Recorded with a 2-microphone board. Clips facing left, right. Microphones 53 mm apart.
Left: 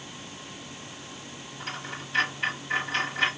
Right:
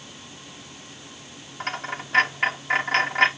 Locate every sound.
1.6 s a dropped coin: 55° right (ahead or behind), 1.7 m